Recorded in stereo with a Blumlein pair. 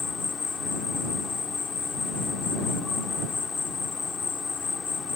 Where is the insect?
15° left.